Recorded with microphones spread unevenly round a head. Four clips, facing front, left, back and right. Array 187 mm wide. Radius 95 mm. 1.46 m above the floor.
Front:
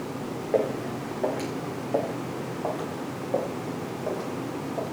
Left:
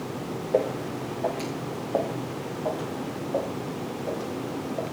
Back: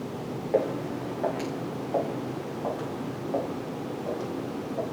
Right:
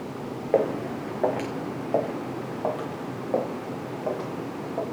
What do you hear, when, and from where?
0.5 s footsteps: 70° right, 4.5 m; by 4.8 s 55° right, 8 m